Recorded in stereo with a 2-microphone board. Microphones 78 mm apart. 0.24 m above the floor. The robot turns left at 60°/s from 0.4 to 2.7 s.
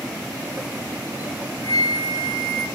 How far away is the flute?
About 2 m.